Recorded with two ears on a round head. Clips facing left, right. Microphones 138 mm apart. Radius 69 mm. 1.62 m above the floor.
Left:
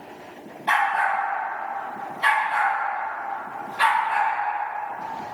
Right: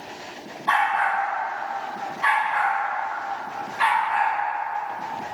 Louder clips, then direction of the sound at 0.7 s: Even; 25° left (ahead or behind).